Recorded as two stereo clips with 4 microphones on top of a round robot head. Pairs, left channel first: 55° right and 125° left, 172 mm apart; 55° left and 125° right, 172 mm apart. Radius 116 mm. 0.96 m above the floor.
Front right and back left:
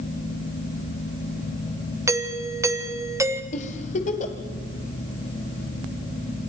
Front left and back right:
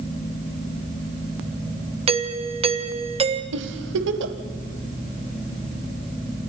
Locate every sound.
2.1 s a doorbell: 165° right, 1.7 m
3.5 s a giggle: 110° right, 1.6 m